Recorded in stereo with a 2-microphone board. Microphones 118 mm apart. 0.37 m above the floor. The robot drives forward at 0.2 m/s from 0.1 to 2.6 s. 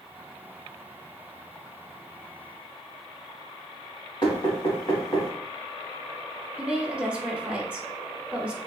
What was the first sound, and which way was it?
Knocking, 45° left (ahead or behind).